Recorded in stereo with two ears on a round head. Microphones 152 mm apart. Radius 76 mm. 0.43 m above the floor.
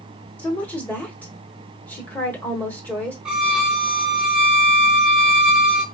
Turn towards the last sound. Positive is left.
turn(degrees=-5)  # may be behind; listen again after turning